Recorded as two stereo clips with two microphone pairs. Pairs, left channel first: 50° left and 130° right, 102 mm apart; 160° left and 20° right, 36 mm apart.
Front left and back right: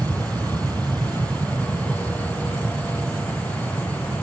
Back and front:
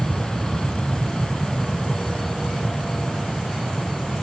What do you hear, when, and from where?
0.0 s an aircraft: 150° right